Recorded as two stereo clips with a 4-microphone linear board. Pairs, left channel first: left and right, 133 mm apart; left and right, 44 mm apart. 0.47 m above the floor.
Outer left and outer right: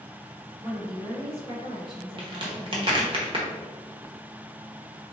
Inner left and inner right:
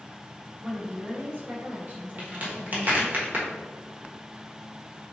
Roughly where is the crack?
Right.